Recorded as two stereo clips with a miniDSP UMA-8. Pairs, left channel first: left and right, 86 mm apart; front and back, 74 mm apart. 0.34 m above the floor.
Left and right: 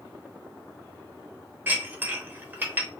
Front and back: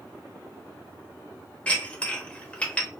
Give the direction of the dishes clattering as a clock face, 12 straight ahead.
2 o'clock.